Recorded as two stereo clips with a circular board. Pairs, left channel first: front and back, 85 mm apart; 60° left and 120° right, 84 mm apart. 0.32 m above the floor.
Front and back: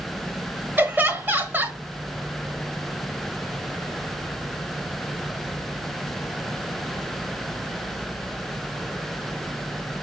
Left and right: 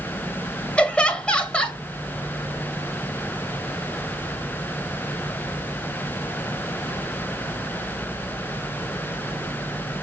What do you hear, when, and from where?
0.8 s laughter: 130° left, 1.6 m